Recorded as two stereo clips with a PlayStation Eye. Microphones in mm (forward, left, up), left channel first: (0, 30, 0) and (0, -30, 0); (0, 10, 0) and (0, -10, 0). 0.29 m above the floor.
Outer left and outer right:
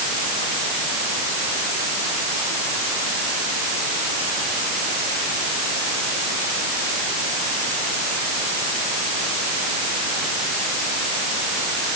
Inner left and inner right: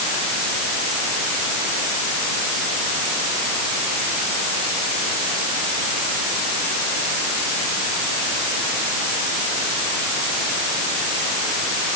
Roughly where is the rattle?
No rattle in this recording.